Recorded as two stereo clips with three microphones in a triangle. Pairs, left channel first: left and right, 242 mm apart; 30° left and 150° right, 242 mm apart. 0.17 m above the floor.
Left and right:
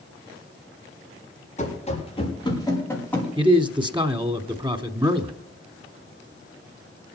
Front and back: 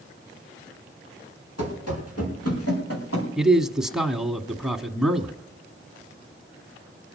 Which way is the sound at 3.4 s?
65° right.